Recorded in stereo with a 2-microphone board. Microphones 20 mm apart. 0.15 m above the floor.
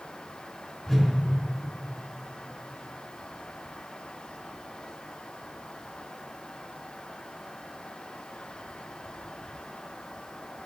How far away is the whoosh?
About 2 m.